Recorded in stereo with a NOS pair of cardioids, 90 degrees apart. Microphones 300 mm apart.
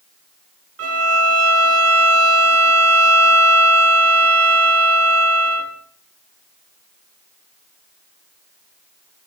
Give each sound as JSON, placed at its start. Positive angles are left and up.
{"t": 0.8, "sound": "a violin", "azimuth_deg": -55, "distance_m": 1.4}